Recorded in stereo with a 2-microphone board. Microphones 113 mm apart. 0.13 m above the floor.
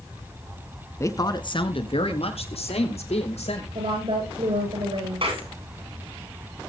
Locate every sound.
1.0 s a woman speaking: 25° left (ahead or behind), 1.1 m; by 3.6 s 75° left (ahead or behind), 4 m
3.8 s a woman speaking: 55° right (ahead or behind), 9.5 m
5.2 s a clap: 60° right (ahead or behind), 9.5 m